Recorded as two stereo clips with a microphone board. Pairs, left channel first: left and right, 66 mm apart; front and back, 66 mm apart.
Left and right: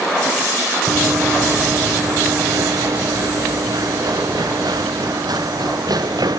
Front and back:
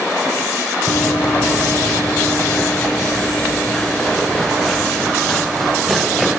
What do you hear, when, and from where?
0.9 s running footsteps: 45° right; by 6.4 s 90° right